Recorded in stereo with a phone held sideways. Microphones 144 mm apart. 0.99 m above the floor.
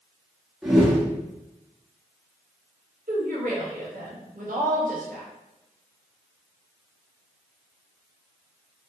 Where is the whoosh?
Centre (ahead or behind), 0.8 m.